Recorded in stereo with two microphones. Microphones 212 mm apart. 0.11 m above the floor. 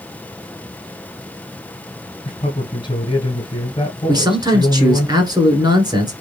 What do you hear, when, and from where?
2.2 s a man speaking: 20° left (ahead or behind), 1.9 m
4.1 s a man speaking: 20° right (ahead or behind), 1.3 m